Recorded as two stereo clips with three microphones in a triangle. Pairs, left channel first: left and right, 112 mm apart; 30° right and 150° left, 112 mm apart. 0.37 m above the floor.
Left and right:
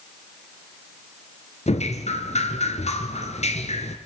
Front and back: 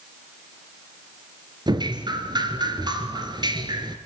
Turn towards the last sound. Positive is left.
turn(degrees=100)